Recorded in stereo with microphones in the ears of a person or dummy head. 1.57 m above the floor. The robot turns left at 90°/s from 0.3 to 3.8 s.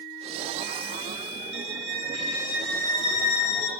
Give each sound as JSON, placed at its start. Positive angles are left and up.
{"t": 1.5, "sound": "a violin", "azimuth_deg": -75, "distance_m": 1.9}